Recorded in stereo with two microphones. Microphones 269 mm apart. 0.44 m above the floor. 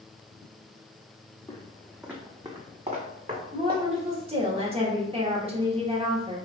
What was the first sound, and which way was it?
Footsteps, 15° left (ahead or behind).